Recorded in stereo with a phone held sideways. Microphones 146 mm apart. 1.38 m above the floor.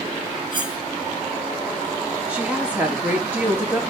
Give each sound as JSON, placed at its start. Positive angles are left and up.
{"t": 0.5, "sound": "cutlery clinking", "side_deg": -30, "distance_m": 3.0}
{"t": 2.3, "sound": "a woman speaking", "side_deg": -10, "distance_m": 3.5}